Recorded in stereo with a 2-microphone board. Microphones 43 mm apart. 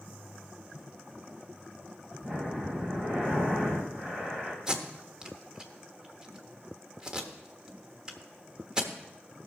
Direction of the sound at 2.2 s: 25° right (ahead or behind).